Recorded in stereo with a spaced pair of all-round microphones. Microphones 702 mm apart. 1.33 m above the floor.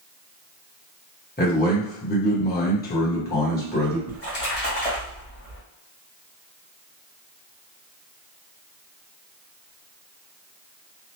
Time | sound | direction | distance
1.4 | a man speaking | 15° left (ahead or behind) | 1.1 m
4.1 | a splash | 60° left (ahead or behind) | 1.1 m